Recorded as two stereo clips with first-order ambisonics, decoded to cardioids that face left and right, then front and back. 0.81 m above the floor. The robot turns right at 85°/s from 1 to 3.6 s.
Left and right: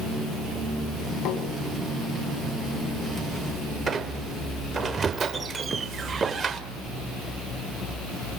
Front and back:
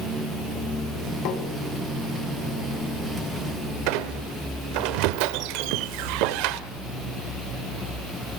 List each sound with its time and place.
1.2 s tapping: 40° left, 2.5 m; by 1.4 s 60° left, 2.5 m
3.9 s a squeak: 165° right, 1.1 m